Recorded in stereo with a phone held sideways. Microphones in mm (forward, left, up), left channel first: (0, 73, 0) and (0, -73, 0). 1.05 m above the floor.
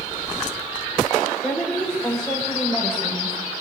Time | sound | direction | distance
1.4 | a woman speaking | 5° left (ahead or behind) | 5.5 m